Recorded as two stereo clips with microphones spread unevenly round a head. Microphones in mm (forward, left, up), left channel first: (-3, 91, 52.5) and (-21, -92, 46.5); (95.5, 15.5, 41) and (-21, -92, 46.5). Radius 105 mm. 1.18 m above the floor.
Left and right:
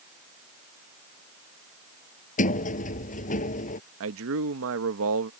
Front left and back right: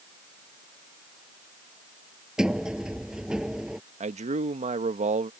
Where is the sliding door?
135° left.